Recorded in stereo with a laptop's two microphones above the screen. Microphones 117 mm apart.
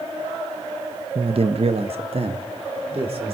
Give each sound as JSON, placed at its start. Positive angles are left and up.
{"t": 1.1, "sound": "a man speaking", "side_deg": -55, "distance_m": 0.5}